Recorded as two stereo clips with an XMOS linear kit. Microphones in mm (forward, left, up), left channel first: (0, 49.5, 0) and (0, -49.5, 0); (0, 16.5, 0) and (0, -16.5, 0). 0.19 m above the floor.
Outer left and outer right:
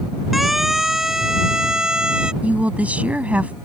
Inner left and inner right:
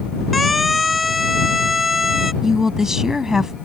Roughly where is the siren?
Centre.